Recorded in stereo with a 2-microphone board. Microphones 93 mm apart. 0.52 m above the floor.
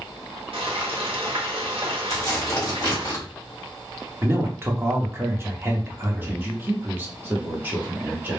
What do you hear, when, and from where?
0.5 s frying: 75° right (ahead or behind), 0.7 m
2.1 s tearing paper: 35° left (ahead or behind), 1.4 m
4.2 s a man speaking: 25° right (ahead or behind), 0.7 m
6.2 s a man speaking: 20° right (ahead or behind), 0.8 m